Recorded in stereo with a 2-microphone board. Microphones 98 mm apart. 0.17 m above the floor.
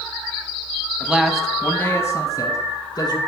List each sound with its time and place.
1.0 s a man speaking: 15° right (ahead or behind), 1.1 m; by 3.2 s 45° left (ahead or behind), 2 m